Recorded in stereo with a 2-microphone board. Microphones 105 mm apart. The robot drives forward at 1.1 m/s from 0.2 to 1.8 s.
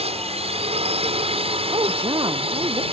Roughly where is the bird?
No bird in this recording.